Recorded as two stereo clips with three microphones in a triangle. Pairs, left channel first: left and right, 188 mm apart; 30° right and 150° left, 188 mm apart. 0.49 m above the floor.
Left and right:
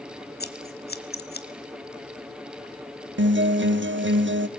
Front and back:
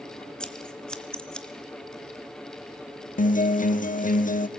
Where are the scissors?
55° left, 1.0 m.